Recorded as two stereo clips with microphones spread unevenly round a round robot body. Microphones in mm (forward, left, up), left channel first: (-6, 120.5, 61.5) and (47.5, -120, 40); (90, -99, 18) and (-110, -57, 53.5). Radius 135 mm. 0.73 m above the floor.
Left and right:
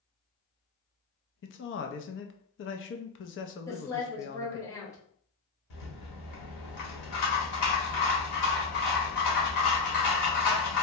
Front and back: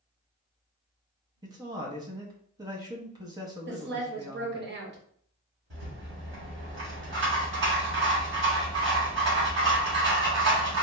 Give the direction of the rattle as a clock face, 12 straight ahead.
8 o'clock.